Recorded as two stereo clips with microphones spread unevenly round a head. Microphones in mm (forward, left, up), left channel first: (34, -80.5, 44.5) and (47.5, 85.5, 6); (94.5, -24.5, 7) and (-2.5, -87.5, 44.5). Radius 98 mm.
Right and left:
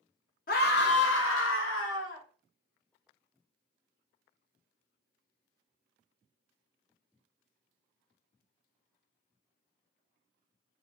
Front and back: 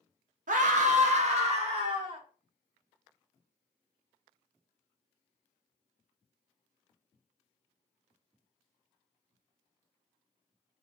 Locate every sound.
0.5 s a scream: 140° right, 0.9 m; by 2.2 s 105° right, 1.8 m